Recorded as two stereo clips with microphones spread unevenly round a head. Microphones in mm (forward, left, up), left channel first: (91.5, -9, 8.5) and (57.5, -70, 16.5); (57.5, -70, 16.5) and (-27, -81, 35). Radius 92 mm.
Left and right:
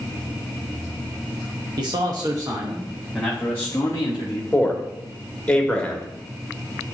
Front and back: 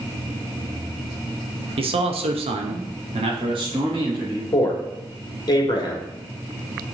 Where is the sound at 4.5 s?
15° right, 1.9 m.